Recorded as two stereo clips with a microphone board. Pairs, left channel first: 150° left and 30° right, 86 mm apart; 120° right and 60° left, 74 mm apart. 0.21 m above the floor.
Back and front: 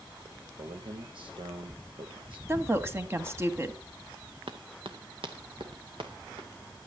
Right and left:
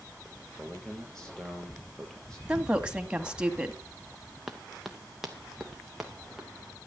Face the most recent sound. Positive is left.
turn(degrees=-25)